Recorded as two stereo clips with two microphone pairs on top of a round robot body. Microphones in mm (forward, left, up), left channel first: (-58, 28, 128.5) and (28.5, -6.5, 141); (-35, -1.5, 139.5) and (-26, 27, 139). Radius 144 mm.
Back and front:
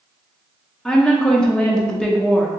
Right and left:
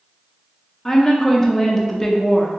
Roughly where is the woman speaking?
Behind.